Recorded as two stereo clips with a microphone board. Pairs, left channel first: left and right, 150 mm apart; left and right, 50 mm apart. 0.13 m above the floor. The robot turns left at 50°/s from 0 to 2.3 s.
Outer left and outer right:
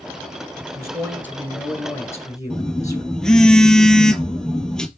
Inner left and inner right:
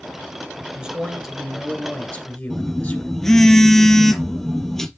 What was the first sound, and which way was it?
A man speaking, 140° right.